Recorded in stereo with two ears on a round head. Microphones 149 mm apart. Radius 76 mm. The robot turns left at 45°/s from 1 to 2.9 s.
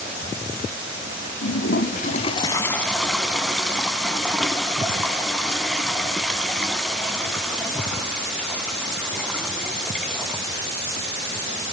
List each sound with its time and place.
1.4 s a toilet flushing: 70° left, 0.9 m; by 10.4 s straight ahead, 0.9 m